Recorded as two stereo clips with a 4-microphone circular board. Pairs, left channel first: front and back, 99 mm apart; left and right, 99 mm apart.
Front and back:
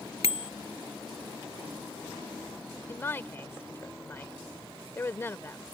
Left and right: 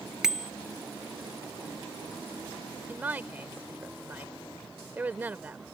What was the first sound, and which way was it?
A bicycle bell, 5° right.